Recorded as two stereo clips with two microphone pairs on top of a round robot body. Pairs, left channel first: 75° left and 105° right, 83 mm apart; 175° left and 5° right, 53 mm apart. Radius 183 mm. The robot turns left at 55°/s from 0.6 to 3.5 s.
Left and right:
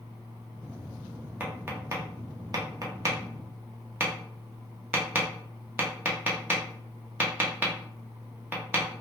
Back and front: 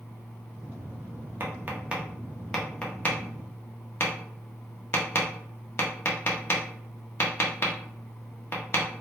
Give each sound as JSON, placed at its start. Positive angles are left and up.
{"t": 1.4, "sound": "tapping", "azimuth_deg": -45, "distance_m": 1.1}